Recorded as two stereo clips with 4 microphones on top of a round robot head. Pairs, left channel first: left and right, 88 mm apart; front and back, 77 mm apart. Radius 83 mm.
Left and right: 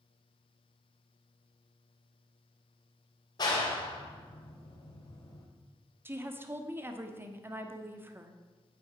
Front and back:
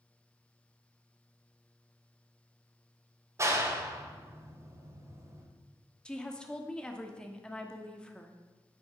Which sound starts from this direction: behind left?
A clap, at 3.4 s.